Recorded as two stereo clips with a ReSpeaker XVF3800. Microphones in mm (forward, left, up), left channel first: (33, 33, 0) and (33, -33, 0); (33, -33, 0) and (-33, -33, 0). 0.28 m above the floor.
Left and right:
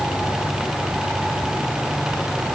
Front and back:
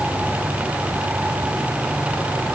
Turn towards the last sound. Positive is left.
No sound to turn to.